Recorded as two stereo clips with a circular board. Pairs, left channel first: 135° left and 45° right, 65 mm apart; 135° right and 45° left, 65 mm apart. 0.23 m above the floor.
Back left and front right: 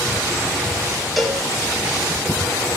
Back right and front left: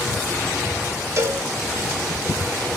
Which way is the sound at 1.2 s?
50° left.